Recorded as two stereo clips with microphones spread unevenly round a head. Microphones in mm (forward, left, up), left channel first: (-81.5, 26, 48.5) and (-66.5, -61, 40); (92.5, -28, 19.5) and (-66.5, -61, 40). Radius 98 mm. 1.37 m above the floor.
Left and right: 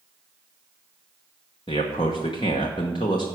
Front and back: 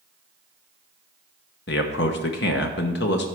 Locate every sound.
1.7 s a man speaking: 45° left, 1.0 m